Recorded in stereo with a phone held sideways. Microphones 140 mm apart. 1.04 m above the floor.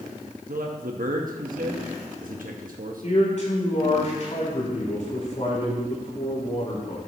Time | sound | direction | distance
0.5 | a man speaking | 80° right | 1.2 m
3.0 | a man speaking | 60° left (ahead or behind) | 4.5 m